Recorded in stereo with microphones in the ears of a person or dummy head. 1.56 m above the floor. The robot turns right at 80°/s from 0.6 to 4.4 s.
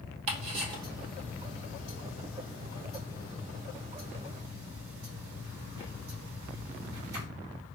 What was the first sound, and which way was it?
Ticking, 45° right (ahead or behind).